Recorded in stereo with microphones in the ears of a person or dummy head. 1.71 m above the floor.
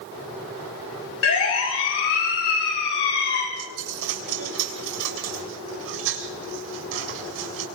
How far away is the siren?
About 6 m.